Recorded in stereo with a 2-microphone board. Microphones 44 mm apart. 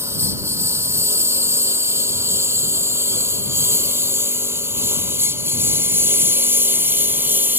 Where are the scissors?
No scissors in this recording.